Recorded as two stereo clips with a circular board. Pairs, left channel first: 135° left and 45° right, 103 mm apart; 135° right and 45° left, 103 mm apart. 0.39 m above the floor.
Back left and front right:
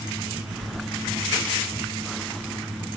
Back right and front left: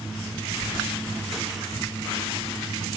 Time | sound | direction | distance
0.6 | keys jangling | 75° right | 1.3 m